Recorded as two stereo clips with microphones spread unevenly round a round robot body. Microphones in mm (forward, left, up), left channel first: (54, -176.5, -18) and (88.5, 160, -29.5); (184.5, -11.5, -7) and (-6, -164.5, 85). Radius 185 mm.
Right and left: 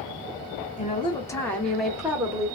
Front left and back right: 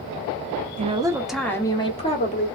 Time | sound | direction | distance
0.8 | a woman speaking | 65° right | 0.7 m